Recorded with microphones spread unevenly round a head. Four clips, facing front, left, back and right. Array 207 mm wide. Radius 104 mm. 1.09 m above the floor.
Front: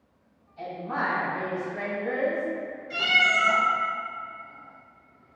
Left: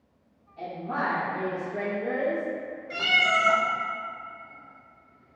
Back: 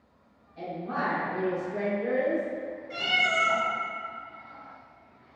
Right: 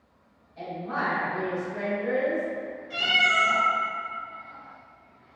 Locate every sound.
0.6 s a woman speaking: 150° right, 1.6 m; by 2.5 s 160° left, 2 m
2.9 s a cat meowing: 50° left, 1.6 m